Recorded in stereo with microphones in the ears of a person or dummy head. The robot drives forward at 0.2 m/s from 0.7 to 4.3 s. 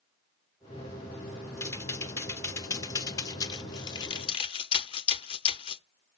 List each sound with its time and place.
1.6 s typing on a keyboard: 15° left (ahead or behind), 0.9 m; by 5.8 s 25° left (ahead or behind), 0.5 m